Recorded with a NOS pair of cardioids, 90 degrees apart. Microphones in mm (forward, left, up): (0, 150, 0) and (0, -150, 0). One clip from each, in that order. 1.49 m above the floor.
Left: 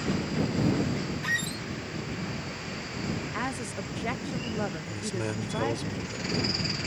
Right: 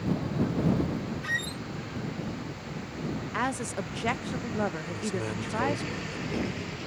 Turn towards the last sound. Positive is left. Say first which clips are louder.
# even
turn(degrees=15)